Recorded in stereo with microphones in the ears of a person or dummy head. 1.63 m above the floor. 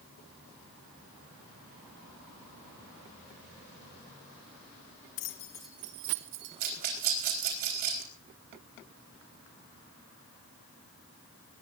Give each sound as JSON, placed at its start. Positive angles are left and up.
{"t": 5.2, "sound": "keys jangling", "side_deg": 40, "distance_m": 1.0}
{"t": 6.6, "sound": "a rattle", "side_deg": -45, "distance_m": 4.0}